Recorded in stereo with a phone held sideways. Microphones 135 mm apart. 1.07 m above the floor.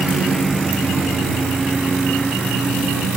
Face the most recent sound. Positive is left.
turn(degrees=0)  # may be behind; listen again after turning